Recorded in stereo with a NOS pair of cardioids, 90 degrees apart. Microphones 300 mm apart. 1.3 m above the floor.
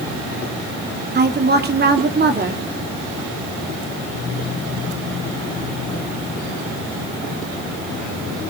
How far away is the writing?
I don't hear writing.